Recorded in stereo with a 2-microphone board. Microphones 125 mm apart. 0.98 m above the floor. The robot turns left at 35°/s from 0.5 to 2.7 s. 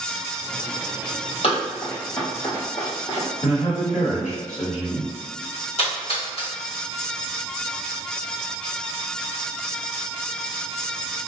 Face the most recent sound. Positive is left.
turn(degrees=55)  # may be behind; listen again after turning